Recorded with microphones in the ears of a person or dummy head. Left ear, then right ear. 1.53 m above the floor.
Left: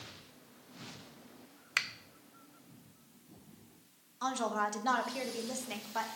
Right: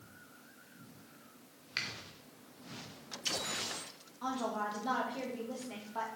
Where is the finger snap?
45° left (ahead or behind), 0.5 m.